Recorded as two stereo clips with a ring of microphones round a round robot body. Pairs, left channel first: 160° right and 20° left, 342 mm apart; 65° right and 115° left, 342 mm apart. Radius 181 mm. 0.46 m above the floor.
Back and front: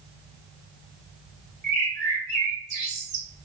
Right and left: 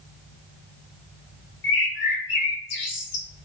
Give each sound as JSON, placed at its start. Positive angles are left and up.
{"t": 1.6, "sound": "a bird", "azimuth_deg": -45, "distance_m": 1.1}